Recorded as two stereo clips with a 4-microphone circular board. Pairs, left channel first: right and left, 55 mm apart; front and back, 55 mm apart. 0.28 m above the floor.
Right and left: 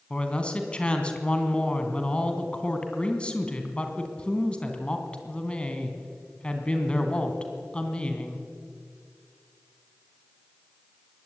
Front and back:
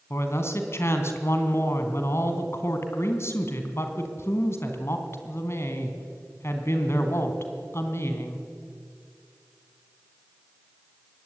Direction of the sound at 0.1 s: 25° right.